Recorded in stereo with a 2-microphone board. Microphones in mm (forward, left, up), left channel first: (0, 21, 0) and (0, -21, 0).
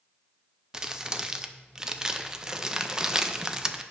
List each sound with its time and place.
0.7 s crumpling: 15° right (ahead or behind), 0.5 m